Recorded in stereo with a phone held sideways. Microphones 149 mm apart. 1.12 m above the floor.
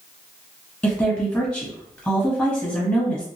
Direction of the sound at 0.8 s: 10° left (ahead or behind).